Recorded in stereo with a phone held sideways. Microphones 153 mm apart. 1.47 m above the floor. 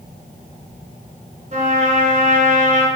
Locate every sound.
1.5 s a trumpet: 50° right (ahead or behind), 3 m